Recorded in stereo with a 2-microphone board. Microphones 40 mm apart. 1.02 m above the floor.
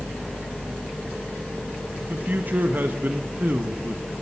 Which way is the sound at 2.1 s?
55° right (ahead or behind).